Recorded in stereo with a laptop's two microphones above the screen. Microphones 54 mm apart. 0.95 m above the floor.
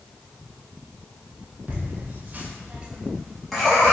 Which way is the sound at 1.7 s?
30° right (ahead or behind).